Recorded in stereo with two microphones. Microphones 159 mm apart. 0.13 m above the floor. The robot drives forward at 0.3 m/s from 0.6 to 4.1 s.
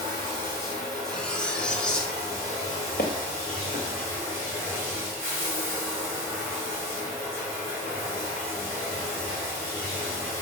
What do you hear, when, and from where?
0.0 s running water: 25° right (ahead or behind), 2.0 m; by 10.4 s 15° right (ahead or behind), 3 m
1.1 s cutlery clinking: 5° left (ahead or behind), 0.6 m
3.0 s footsteps: 85° left, 1.0 m; by 3.9 s 80° left, 1.0 m